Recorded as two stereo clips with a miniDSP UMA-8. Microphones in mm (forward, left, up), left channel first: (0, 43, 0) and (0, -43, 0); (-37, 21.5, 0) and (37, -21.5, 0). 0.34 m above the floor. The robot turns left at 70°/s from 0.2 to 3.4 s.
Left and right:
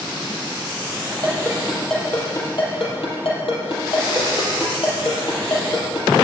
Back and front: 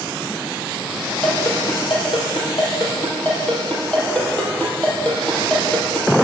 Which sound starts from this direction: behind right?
A ringtone, at 1.2 s.